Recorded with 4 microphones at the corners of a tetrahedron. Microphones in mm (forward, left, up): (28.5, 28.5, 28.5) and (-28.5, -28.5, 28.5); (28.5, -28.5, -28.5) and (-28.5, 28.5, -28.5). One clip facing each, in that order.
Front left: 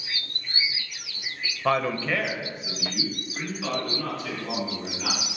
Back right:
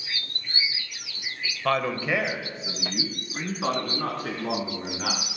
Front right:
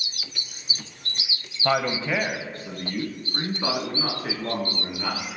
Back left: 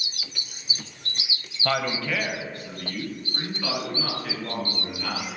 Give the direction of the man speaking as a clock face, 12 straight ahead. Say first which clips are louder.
Front left 1 dB, front right 3 dB; 12 o'clock.